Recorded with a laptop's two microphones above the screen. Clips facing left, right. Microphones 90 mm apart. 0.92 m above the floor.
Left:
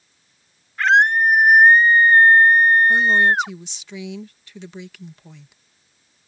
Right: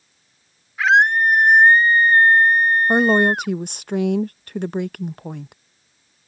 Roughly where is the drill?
No drill in this recording.